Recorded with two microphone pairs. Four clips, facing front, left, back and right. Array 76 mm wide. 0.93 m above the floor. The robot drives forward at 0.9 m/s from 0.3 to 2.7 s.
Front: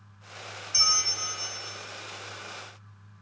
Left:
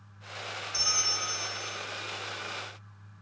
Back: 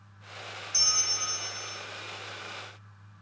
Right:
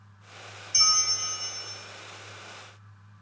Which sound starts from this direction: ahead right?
A bell, at 0.7 s.